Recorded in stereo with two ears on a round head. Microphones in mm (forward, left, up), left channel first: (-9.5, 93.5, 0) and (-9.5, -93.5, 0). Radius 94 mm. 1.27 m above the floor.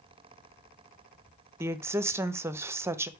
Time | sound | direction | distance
1.6 | a woman speaking | 15° right (ahead or behind) | 0.7 m